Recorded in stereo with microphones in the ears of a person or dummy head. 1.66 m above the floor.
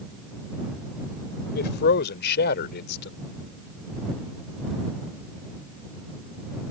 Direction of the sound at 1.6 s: 60° left (ahead or behind).